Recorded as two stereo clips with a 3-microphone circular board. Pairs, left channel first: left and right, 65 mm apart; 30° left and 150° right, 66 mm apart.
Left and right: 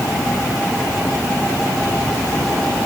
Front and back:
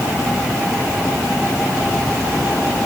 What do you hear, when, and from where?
Only background noise.